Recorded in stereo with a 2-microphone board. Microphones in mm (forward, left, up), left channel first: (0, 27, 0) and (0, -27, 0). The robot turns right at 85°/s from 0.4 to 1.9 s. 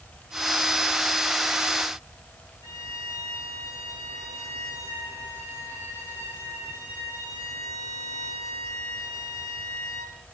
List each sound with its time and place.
2.6 s a violin: 75° left (ahead or behind), 7.5 m